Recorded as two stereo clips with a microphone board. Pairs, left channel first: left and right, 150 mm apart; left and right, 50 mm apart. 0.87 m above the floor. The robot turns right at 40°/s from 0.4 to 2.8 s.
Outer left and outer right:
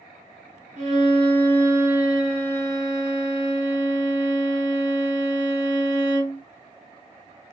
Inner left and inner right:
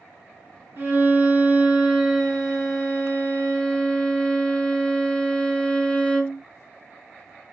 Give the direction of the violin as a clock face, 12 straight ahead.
2 o'clock.